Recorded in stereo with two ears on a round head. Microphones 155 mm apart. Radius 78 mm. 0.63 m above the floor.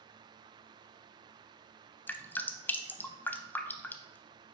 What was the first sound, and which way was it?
Dripping, 10° left (ahead or behind).